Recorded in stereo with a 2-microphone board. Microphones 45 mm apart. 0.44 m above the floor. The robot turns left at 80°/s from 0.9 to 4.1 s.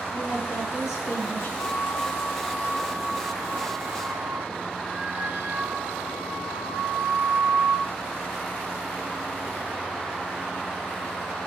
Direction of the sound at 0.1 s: 85° left.